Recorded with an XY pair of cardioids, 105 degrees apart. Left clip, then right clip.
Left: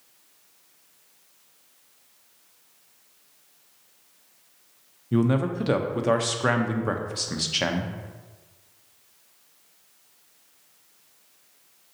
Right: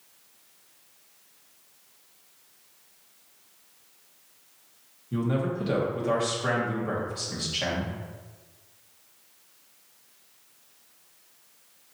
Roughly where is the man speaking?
Ahead left.